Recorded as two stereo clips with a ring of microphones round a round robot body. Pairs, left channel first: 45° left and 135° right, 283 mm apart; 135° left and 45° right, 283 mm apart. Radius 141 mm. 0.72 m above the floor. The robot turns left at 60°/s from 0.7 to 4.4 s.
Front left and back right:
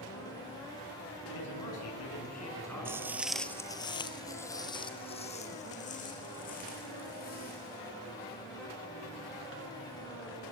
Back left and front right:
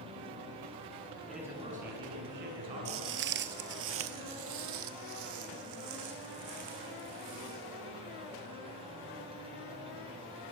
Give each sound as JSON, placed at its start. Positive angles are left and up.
{"t": 1.3, "sound": "a man speaking", "azimuth_deg": 50, "distance_m": 7.5}
{"t": 2.9, "sound": "footsteps", "azimuth_deg": -55, "distance_m": 1.0}